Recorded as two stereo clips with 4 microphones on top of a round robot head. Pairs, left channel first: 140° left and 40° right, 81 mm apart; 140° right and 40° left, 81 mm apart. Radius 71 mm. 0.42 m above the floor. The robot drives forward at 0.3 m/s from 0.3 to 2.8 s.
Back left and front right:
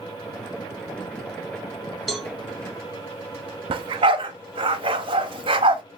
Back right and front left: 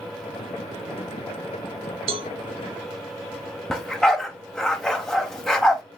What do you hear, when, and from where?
2.1 s a cowbell: 50° left, 0.8 m
3.7 s a dog barking: 55° right, 1.0 m